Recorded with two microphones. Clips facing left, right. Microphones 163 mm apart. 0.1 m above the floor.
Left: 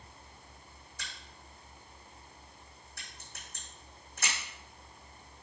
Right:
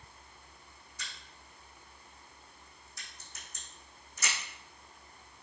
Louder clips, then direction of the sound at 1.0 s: Left 1 dB; 70° left (ahead or behind).